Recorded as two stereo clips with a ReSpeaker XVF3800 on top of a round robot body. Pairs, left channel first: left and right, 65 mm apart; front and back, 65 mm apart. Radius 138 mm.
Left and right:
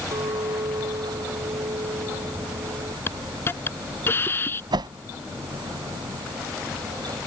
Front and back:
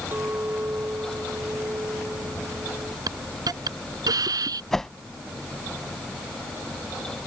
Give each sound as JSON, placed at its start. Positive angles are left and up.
{"t": 0.1, "sound": "a clink", "azimuth_deg": -120}
{"t": 3.1, "sound": "a hiss", "azimuth_deg": 150}
{"t": 4.7, "sound": "a whoosh", "azimuth_deg": -85}